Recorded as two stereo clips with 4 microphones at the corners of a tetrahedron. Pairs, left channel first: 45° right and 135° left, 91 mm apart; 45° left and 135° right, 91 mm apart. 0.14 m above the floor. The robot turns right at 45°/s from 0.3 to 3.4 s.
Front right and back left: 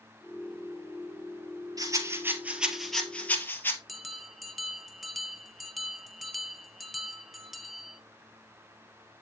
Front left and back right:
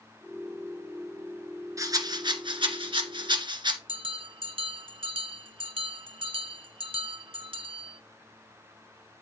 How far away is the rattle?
About 1.7 m.